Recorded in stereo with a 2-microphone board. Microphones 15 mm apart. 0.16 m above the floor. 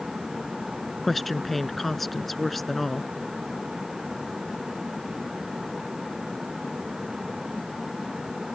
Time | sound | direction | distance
1.0 | a woman speaking | 5° left (ahead or behind) | ?